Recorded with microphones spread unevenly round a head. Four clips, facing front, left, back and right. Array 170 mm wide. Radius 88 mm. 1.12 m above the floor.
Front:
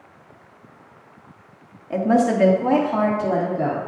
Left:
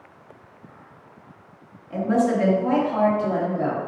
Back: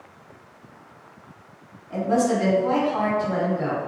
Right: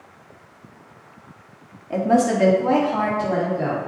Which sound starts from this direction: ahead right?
A woman speaking, at 1.9 s.